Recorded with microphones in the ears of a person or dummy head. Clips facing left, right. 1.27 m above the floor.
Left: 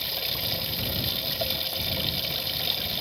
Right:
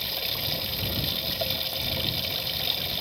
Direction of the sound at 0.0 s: 5° right (ahead or behind).